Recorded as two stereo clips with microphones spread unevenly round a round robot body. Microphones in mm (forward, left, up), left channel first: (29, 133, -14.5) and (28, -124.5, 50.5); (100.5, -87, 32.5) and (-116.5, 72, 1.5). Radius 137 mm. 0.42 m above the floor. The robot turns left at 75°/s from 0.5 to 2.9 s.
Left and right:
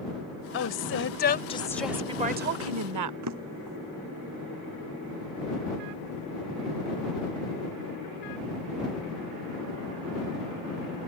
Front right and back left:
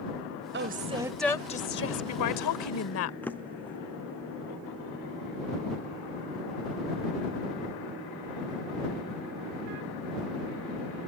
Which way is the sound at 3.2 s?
120° right.